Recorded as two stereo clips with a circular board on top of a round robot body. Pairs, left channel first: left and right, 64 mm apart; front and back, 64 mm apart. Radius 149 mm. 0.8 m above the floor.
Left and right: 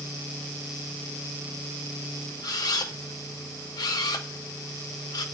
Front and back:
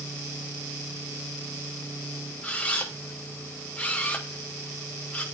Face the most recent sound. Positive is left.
turn(degrees=70)